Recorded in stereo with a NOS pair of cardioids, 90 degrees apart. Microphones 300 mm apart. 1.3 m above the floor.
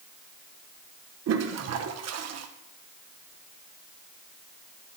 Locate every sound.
1.3 s a toilet flushing: 60° right, 1.0 m